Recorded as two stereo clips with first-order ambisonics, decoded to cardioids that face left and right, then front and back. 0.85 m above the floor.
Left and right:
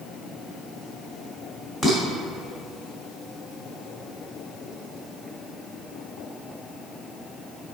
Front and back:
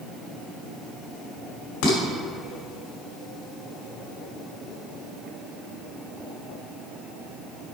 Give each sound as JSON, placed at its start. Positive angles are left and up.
{"t": 1.8, "sound": "dishes clattering", "azimuth_deg": 10, "distance_m": 2.5}